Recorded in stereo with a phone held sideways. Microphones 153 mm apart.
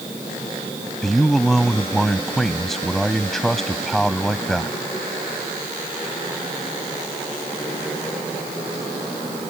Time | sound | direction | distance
1.0 | a man speaking | centre (ahead or behind) | ?